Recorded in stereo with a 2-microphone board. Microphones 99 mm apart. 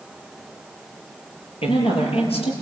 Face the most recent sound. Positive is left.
turn(degrees=80)